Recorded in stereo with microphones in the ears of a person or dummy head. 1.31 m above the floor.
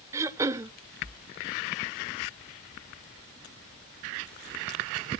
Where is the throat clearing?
15° right (ahead or behind), 0.6 m.